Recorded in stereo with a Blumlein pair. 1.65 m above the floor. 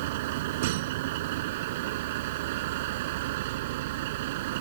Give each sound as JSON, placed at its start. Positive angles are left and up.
{"t": 0.0, "sound": "a vehicle", "azimuth_deg": -50}